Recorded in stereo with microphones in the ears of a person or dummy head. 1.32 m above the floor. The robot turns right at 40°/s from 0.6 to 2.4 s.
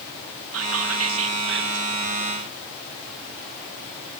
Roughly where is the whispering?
Right.